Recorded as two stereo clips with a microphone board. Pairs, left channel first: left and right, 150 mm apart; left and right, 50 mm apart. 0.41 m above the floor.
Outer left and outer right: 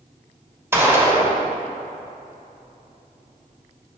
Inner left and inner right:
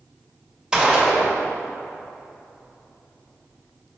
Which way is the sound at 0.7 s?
15° right (ahead or behind).